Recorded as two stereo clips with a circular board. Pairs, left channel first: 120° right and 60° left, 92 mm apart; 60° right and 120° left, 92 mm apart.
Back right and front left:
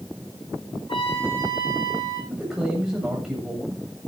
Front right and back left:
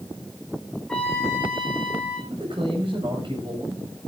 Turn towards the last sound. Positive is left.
turn(degrees=145)